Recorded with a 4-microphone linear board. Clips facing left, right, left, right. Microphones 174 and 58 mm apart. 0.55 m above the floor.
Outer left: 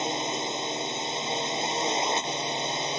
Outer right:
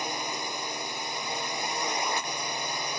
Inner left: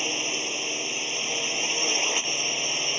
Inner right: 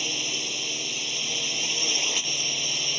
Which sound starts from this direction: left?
A drone, at 0.0 s.